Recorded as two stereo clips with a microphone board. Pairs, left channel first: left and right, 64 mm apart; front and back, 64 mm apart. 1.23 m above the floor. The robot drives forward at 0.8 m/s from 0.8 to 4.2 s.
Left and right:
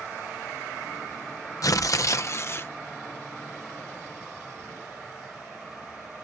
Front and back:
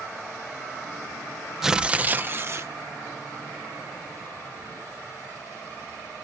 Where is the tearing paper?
95° left; by 2.7 s 140° left.